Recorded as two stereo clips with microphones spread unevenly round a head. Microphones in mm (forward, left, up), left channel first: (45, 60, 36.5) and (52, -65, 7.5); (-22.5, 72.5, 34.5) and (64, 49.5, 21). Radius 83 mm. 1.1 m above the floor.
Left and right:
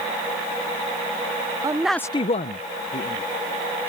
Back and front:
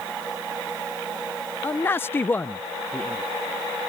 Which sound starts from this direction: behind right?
A man speaking, at 1.6 s.